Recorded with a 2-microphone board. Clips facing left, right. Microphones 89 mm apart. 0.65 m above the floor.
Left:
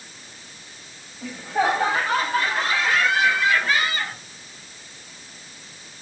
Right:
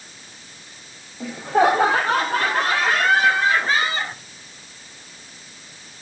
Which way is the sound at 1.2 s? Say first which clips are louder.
Right 5 dB; 65° right (ahead or behind).